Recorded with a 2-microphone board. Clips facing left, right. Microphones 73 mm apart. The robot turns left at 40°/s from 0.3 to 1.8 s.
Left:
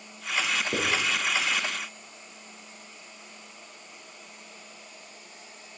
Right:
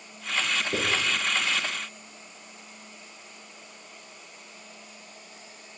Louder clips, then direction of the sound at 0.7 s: Even; 40° left (ahead or behind).